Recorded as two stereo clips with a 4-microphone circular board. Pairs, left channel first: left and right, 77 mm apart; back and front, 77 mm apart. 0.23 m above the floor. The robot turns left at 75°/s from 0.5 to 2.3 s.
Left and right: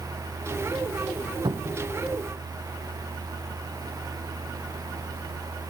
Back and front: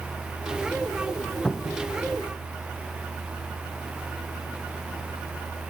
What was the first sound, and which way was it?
A cupboard door, 100° right.